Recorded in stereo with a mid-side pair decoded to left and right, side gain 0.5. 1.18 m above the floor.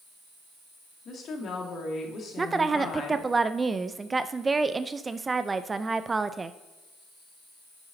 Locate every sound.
1.1 s a woman speaking: 55° left, 2.5 m
2.4 s a woman speaking: 25° right, 0.5 m